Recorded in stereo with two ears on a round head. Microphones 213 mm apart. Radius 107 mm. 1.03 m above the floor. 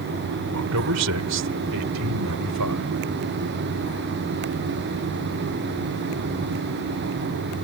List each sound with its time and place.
0.5 s a man speaking: 70° right (ahead or behind); by 3.0 s 75° right (ahead or behind)